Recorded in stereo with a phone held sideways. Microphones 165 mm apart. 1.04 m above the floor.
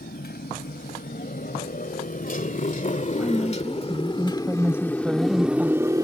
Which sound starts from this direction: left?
A motorcycle, at 0.0 s.